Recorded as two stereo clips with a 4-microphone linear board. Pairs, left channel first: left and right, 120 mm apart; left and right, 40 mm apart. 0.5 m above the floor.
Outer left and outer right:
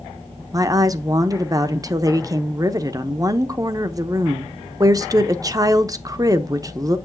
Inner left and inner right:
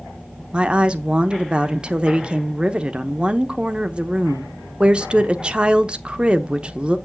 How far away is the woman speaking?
About 0.8 m.